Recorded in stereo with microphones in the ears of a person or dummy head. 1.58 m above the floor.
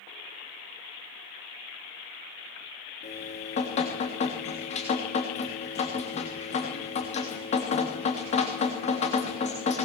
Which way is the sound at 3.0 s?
40° left (ahead or behind).